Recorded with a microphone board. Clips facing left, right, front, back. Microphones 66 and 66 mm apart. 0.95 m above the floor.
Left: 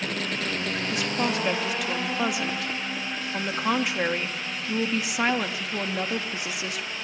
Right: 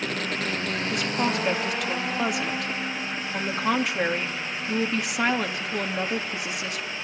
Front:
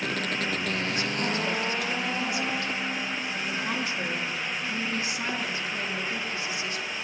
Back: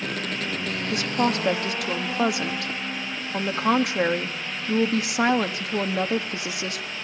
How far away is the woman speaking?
About 1.8 m.